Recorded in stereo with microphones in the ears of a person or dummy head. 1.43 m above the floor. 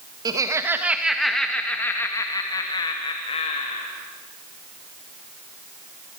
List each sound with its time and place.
0.2 s laughter: 20° right (ahead or behind), 1.6 m; by 3.9 s 30° left (ahead or behind), 2.5 m